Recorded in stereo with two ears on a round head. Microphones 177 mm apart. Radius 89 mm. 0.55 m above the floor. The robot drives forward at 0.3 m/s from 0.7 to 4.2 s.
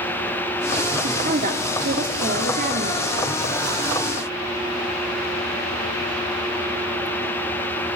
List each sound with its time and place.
1.0 s a woman speaking: 40° right (ahead or behind), 1.3 m